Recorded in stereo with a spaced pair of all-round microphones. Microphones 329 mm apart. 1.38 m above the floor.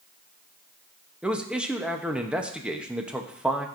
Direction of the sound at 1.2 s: 5° right (ahead or behind).